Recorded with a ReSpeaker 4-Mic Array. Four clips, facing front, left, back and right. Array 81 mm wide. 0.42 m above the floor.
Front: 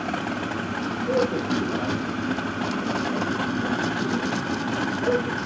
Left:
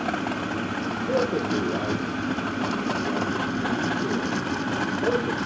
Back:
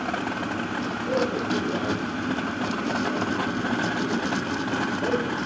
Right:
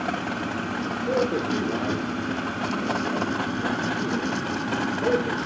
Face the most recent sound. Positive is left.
turn(degrees=-70)